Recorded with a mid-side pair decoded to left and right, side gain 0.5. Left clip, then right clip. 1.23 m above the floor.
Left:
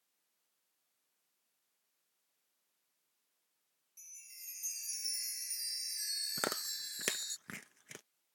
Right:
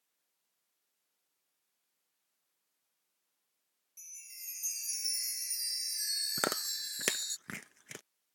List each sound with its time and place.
4.0 s a chime: 30° right
6.4 s chewing: 30° right